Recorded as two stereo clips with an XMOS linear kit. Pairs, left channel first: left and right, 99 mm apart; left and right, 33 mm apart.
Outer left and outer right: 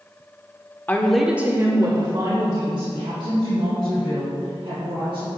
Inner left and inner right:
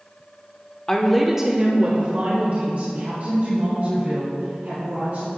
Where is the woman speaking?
20° left (ahead or behind), 0.9 m; by 5.3 s 65° right (ahead or behind), 5 m.